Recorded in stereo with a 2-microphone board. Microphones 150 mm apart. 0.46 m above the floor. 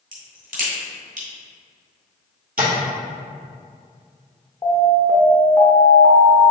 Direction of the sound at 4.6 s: 30° left (ahead or behind).